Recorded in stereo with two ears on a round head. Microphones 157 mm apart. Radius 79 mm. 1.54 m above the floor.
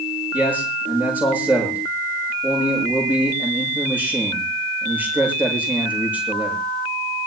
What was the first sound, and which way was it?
A man speaking, 10° right (ahead or behind).